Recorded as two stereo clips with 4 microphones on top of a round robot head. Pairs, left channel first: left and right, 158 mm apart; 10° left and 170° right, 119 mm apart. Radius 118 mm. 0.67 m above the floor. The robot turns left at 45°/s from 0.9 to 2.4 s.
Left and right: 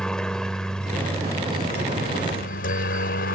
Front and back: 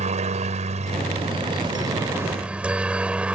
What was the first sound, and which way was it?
A helicopter, 175° left.